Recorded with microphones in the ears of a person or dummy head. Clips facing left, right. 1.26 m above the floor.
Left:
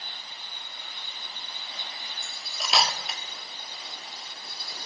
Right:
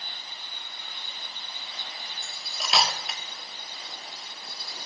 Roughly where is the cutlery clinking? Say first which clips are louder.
Even; centre.